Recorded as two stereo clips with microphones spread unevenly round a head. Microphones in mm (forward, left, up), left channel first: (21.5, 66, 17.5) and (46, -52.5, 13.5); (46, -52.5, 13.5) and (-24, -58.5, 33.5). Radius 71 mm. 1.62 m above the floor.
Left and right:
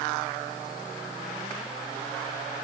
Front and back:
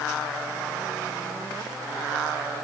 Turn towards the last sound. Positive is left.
No sound to turn to.